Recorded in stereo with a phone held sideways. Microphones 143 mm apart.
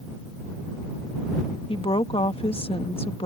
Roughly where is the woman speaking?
Left.